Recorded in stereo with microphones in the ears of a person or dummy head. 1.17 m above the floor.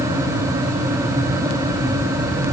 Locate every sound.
Only background noise.